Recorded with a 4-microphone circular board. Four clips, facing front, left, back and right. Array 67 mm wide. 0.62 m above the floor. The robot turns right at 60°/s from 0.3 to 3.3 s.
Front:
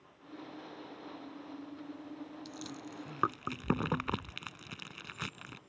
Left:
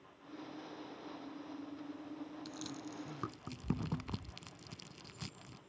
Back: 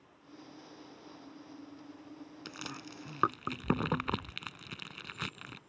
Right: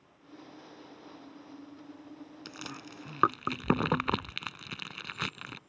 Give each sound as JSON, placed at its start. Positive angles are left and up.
{"t": 2.5, "sound": "chewing", "azimuth_deg": -145}